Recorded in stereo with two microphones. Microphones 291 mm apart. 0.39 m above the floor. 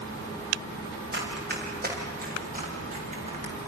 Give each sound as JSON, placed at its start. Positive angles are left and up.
{"t": 1.1, "sound": "running footsteps", "side_deg": -35, "distance_m": 7.0}